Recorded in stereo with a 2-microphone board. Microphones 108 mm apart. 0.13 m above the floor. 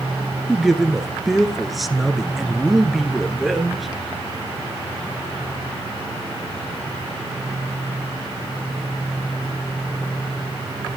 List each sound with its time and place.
0.5 s a man speaking: centre (ahead or behind), 1.6 m